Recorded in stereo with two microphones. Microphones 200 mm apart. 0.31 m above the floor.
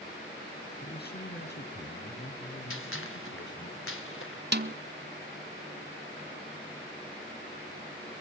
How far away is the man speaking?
About 2.5 m.